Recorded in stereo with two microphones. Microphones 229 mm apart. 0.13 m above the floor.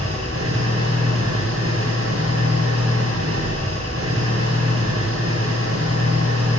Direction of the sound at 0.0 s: 85° right.